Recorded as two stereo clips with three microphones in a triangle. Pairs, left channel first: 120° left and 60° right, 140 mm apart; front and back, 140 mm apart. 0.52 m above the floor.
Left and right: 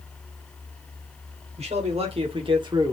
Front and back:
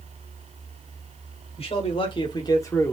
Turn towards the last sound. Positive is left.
turn(degrees=-55)